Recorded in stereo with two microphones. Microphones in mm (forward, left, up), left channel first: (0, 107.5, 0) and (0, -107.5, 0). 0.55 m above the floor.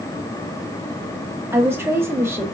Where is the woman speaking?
10° right (ahead or behind), 0.7 m.